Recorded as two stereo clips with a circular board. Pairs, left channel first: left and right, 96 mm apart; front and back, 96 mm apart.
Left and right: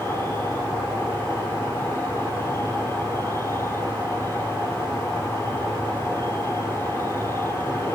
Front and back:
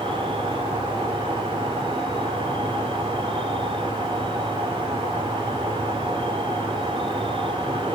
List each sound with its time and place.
0.0 s an insect: 155° left, 3 m